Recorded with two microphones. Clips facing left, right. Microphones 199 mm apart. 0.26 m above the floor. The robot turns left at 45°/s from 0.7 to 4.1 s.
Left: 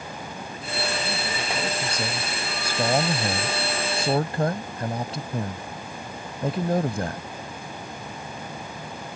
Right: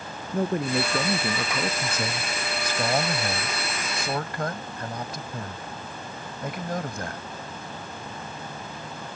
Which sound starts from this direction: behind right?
A man speaking, at 0.3 s.